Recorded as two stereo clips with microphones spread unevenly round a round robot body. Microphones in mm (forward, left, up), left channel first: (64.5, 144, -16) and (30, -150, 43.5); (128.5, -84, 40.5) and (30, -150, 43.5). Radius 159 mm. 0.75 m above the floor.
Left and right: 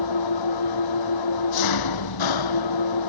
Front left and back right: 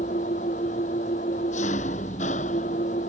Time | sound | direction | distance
0.0 | an engine running | 85° left | ?